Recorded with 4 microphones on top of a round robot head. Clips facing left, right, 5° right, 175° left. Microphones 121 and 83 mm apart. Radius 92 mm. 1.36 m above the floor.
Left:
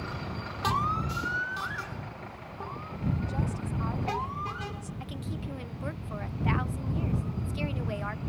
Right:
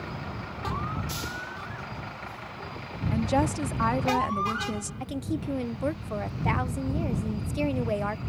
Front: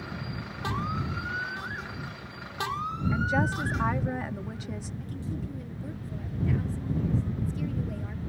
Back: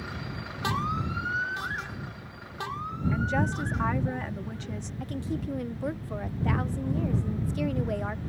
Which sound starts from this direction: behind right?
A woman speaking, at 5.0 s.